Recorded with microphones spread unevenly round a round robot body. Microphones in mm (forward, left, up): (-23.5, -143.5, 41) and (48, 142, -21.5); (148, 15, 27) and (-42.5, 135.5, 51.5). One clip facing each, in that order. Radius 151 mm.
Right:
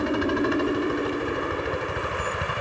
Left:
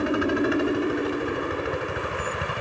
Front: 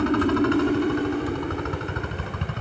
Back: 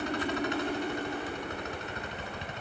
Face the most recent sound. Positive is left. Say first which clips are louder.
# left 1 dB, front 12 dB
turn(degrees=-10)